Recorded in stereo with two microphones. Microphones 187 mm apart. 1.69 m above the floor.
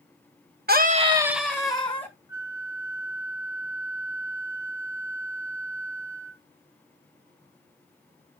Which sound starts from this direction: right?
A scream, at 0.7 s.